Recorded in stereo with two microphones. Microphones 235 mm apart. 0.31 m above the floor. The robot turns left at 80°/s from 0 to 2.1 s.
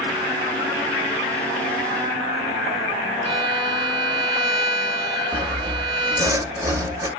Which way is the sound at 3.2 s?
25° right (ahead or behind).